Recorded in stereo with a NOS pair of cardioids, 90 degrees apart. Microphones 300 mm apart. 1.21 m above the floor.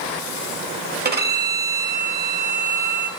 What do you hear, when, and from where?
1.1 s a violin: 35° right, 0.9 m